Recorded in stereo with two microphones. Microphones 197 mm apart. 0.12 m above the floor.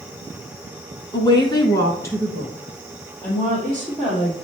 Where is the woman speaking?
20° left (ahead or behind), 1.1 m; by 4.3 s 5° left (ahead or behind), 3.5 m.